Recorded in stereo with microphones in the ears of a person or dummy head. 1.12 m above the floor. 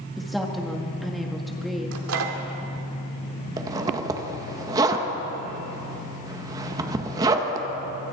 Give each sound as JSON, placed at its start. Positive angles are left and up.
{"t": 0.2, "sound": "a woman speaking", "side_deg": 0, "distance_m": 1.9}
{"t": 1.9, "sound": "a microwave", "side_deg": -75, "distance_m": 2.5}
{"t": 3.6, "sound": "a zipper", "side_deg": -20, "distance_m": 1.7}